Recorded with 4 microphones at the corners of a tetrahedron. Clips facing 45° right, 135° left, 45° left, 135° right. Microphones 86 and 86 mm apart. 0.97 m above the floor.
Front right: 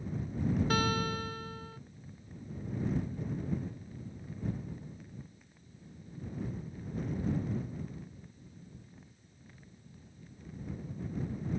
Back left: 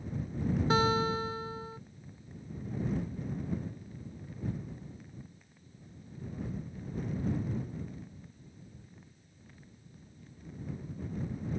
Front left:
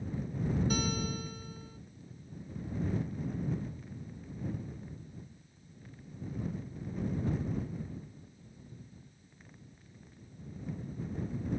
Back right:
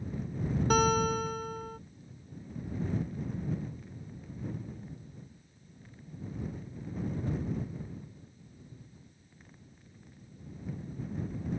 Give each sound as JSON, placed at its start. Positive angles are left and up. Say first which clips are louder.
{"t": 0.7, "sound": "a guitar", "louder": "back left 4 dB, back right 8 dB", "azimuth_deg": -160}